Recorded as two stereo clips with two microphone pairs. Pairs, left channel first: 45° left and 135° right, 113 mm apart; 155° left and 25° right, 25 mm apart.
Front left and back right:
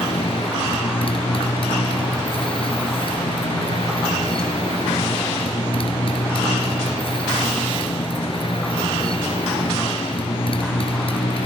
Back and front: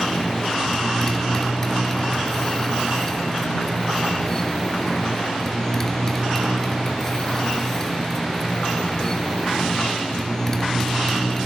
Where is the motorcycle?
85° left.